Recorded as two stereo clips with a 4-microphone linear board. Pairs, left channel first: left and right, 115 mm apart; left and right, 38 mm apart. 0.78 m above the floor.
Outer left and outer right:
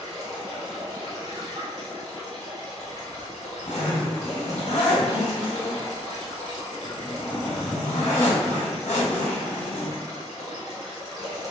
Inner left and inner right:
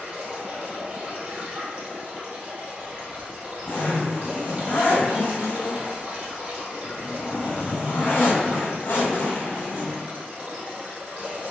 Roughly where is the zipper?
Left.